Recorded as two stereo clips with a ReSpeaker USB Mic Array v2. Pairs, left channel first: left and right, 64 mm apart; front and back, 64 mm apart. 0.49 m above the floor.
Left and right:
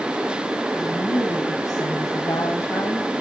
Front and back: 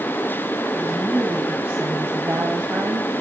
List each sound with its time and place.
0.7 s a woman speaking: 115° left, 4.5 m; by 3.1 s 135° left, 2.5 m